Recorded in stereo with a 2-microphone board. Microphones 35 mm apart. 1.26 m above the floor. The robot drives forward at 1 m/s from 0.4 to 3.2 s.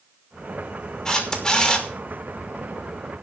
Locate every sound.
1.1 s a camera shutter: 15° left (ahead or behind), 3 m; by 1.9 s 20° left (ahead or behind), 2.5 m